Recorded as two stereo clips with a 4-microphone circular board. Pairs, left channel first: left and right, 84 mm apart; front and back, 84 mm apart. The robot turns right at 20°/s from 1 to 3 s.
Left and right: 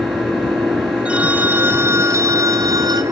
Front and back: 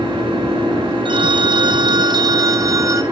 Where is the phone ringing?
165° right, 2 m; by 3.0 s 130° right, 2 m.